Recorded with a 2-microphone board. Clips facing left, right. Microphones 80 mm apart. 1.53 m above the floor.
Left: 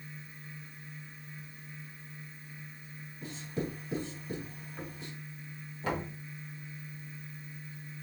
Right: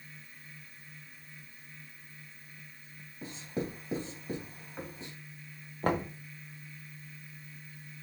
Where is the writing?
40° right (ahead or behind), 2.5 m.